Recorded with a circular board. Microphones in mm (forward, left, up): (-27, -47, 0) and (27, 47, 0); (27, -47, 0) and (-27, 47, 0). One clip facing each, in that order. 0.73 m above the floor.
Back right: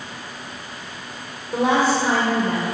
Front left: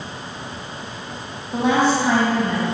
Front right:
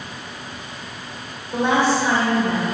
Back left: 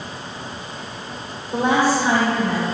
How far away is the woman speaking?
About 3 m.